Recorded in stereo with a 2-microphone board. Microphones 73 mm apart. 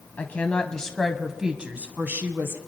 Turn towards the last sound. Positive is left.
turn(degrees=-30)  # may be behind; listen again after turning